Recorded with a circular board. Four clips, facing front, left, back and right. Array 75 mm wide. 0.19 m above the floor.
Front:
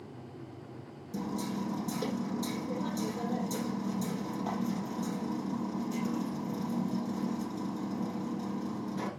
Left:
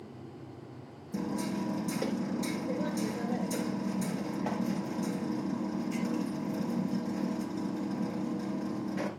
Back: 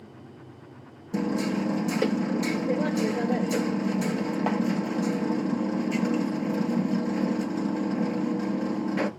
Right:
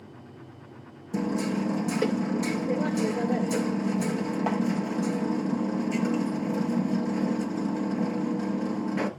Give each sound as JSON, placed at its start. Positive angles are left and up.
{"t": 1.1, "sound": "hammering", "azimuth_deg": -150, "distance_m": 1.5}